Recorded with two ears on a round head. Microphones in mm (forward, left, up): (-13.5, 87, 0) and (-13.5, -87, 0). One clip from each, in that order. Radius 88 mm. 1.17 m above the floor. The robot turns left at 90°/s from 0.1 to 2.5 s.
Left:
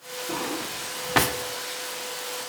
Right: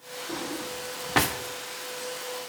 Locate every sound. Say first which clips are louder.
0.3 s a drawer: left 4 dB; 75° left (ahead or behind), 0.9 m; by 1.4 s 10° right (ahead or behind), 0.9 m